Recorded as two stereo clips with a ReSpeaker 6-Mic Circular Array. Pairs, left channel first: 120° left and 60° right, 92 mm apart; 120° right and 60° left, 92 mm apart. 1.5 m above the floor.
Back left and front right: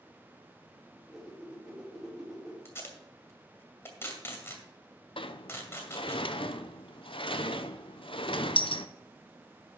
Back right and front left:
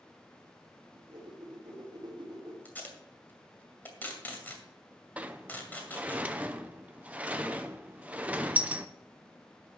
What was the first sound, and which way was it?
A whoosh, 25° left.